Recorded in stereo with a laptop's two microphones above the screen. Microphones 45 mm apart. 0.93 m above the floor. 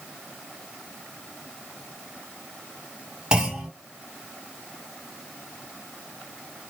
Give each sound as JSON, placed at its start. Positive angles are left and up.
{"t": 3.3, "sound": "a clunk", "side_deg": -20, "distance_m": 2.5}